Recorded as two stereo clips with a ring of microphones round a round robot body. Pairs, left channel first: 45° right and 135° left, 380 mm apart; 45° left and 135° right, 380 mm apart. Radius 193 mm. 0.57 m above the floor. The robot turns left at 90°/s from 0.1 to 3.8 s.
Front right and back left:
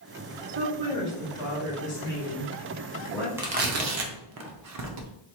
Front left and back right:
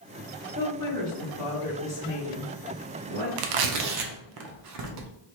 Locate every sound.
0.6 s a woman speaking: 110° left, 1.9 m; by 3.3 s 135° right, 1.9 m
3.4 s tearing paper: 140° right, 0.6 m; by 5.1 s straight behind, 0.6 m